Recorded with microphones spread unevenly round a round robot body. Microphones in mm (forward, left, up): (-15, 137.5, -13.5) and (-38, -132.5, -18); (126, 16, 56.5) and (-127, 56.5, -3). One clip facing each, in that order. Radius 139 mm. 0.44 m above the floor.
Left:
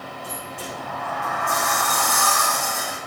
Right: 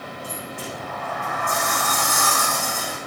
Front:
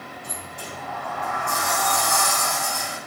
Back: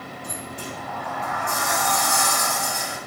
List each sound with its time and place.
0.2 s a sliding door: straight behind, 5 m